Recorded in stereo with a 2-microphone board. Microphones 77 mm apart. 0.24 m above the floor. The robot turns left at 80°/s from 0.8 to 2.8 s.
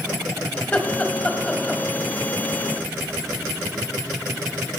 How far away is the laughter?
About 0.9 m.